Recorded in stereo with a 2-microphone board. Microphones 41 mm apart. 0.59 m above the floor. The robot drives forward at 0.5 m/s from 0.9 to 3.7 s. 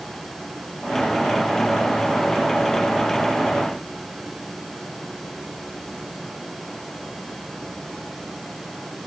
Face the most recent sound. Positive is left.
No sound to turn to.